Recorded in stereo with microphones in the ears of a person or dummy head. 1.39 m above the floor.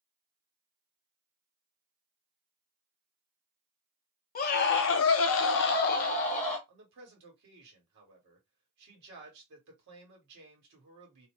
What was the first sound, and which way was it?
A scream, 40° left (ahead or behind).